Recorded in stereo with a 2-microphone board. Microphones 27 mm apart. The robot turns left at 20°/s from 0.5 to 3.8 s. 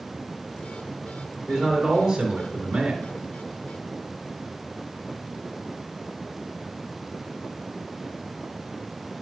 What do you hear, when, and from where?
1.5 s a man speaking: 5° right, 2.5 m; by 3.1 s 40° right, 2.5 m